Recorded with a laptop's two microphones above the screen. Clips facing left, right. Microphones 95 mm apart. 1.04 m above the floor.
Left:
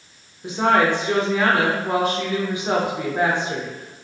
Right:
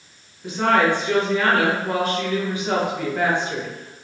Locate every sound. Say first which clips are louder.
0.4 s a woman speaking: even; 20° left (ahead or behind), 0.9 m